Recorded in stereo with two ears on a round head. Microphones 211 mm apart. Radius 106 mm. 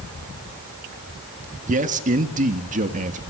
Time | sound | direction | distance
1.7 | a man speaking | 35° right (ahead or behind) | 1.8 m